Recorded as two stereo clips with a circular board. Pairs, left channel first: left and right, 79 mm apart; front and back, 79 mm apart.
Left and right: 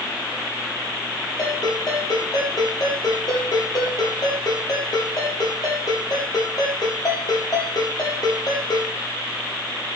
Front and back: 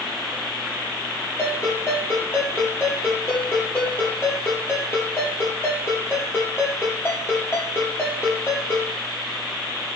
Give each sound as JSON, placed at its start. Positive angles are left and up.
{"t": 1.4, "sound": "a ringtone", "azimuth_deg": 55, "distance_m": 6.5}